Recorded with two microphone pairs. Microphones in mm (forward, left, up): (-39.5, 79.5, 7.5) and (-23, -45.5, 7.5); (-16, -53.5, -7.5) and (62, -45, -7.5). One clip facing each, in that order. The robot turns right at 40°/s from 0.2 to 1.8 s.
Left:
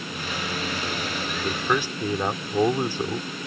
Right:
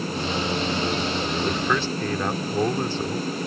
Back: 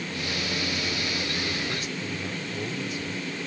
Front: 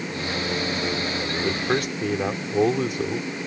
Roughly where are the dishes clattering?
I don't hear dishes clattering.